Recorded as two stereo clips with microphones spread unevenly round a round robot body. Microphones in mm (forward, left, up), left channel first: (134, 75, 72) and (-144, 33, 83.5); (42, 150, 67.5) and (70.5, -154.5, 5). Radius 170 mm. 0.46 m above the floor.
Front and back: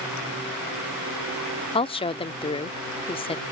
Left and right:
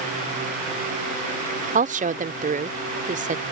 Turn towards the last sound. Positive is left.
turn(degrees=-50)